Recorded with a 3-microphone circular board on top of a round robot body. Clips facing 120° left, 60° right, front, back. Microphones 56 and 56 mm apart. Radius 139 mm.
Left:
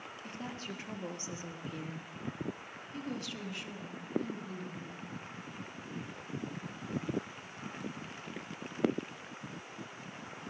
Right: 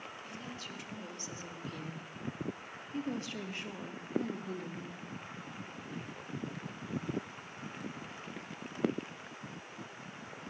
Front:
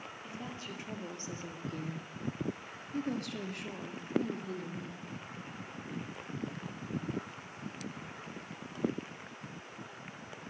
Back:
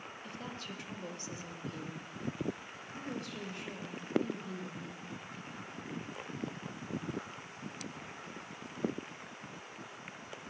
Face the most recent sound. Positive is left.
turn(degrees=-35)